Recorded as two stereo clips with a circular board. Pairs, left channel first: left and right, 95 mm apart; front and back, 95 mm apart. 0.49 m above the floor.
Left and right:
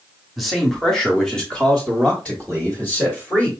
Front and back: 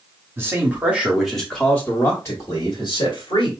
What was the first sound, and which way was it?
A man speaking, straight behind.